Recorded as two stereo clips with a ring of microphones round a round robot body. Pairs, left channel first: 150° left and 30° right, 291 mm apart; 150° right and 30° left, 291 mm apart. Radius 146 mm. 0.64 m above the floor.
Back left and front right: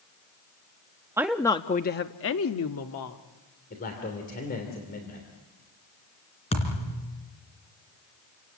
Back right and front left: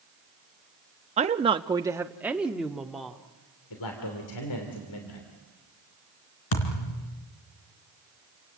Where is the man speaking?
155° right, 3 m.